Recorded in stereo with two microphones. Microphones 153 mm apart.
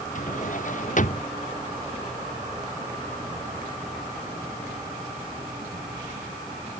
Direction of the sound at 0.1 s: 55° left (ahead or behind).